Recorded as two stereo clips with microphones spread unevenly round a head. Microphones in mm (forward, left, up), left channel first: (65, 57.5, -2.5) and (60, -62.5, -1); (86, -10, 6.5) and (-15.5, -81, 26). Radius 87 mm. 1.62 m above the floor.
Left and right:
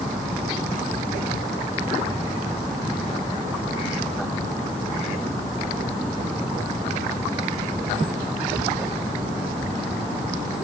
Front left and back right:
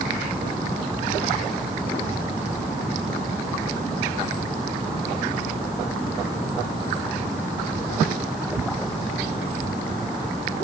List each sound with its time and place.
Only background noise.